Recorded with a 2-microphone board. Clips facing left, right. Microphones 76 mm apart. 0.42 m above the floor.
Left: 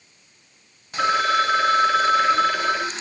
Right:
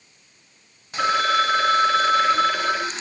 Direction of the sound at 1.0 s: 5° left (ahead or behind).